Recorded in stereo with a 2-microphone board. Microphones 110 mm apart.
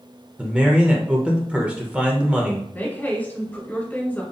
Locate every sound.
0.4 s a man speaking: 10° right (ahead or behind), 0.9 m
2.7 s a woman speaking: 15° left (ahead or behind), 1.3 m